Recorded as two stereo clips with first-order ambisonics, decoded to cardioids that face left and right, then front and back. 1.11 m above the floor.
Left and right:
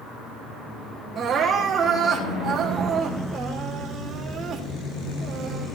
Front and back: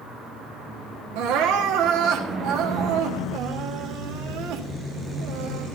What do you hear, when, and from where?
1.1 s crying: 160° right, 1.5 m